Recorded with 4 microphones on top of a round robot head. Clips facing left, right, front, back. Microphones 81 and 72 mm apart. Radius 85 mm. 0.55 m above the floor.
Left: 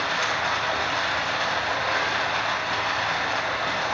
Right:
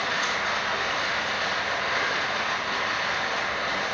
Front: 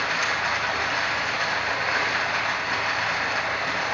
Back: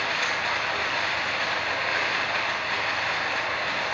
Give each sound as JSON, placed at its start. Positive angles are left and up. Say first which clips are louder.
{"t": 0.0, "sound": "running water", "louder": "left 2 dB, front 2 dB", "azimuth_deg": 80, "distance_m": 2.5}